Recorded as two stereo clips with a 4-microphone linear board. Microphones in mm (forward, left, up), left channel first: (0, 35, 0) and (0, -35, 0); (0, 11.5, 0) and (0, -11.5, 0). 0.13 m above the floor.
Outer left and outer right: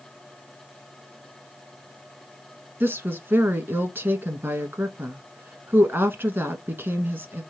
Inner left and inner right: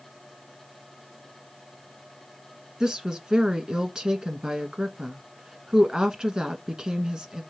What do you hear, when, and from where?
2.8 s a woman speaking: 30° right (ahead or behind), 1.1 m